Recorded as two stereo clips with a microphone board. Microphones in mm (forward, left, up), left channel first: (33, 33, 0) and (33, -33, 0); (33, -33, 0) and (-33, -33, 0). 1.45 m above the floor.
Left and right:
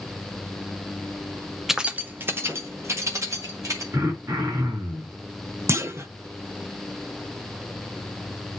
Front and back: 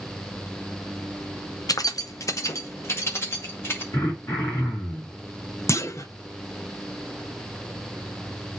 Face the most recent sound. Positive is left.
turn(degrees=-40)